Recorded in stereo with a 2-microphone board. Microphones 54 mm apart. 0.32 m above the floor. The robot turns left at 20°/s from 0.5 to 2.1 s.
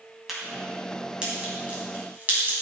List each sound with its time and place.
0.3 s a crack: 5° right (ahead or behind), 2.5 m; by 2.5 s 35° right (ahead or behind), 2.5 m